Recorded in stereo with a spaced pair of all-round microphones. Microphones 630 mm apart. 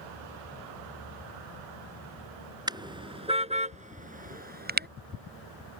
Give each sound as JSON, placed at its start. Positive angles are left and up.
{"t": 2.7, "sound": "a car horn", "side_deg": -5}